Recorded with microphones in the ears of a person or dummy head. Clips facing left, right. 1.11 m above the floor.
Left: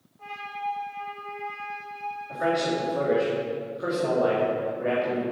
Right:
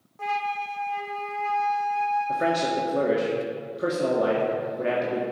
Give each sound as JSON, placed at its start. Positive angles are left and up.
{"t": 0.2, "sound": "a flute", "side_deg": -75, "distance_m": 0.9}
{"t": 2.3, "sound": "a man speaking", "side_deg": -45, "distance_m": 1.8}